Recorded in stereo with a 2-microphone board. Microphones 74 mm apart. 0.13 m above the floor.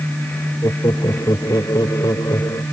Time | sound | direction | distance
0.6 | laughter | 60° left (ahead or behind) | ?